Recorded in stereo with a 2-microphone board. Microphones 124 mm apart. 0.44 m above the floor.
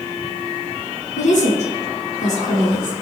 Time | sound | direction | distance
1.2 | a woman speaking | 65° left (ahead or behind) | 5.5 m